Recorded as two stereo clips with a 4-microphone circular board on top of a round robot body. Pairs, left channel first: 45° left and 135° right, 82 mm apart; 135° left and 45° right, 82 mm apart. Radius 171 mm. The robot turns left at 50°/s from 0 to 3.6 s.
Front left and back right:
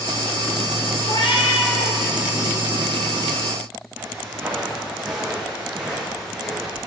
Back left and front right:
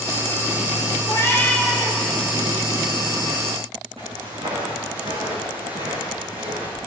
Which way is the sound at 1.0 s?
85° left.